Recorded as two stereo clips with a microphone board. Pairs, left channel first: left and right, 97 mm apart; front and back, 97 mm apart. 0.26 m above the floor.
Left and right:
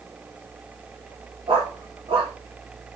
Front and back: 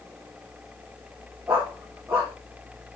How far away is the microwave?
No microwave in this recording.